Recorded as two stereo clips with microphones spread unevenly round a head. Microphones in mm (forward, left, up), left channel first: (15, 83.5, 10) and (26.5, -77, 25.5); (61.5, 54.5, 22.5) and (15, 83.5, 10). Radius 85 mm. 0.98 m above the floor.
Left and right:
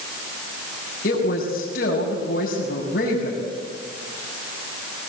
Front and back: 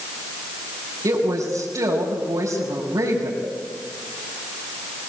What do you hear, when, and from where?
1.0 s a woman speaking: 135° left, 5.5 m